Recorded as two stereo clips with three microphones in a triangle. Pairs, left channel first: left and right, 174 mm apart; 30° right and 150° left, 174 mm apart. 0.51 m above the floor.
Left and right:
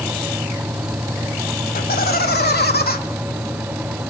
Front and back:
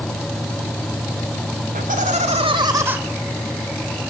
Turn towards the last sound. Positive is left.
turn(degrees=70)